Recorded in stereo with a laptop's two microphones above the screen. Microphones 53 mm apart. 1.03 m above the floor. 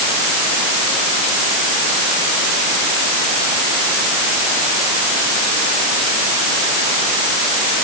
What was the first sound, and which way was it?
Only background noise.